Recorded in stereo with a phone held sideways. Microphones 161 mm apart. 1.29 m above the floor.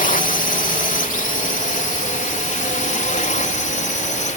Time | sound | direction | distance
0.0 | a drone | 55° left (ahead or behind) | ?